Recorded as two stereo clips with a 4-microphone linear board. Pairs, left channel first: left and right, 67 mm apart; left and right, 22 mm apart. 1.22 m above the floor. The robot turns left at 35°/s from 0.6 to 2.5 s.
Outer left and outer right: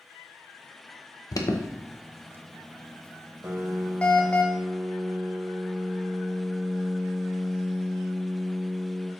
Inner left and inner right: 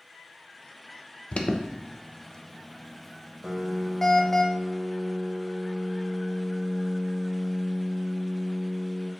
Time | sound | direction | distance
1.3 | an alarm | 60° left (ahead or behind) | 0.8 m
3.4 | a piano | 30° right (ahead or behind) | 0.6 m